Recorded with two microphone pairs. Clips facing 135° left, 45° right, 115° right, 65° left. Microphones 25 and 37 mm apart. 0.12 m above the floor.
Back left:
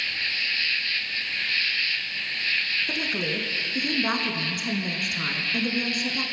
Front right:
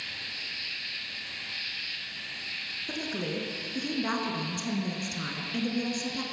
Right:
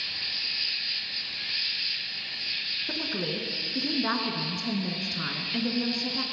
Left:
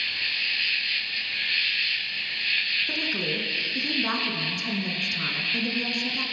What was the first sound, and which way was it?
An insect, 110° left.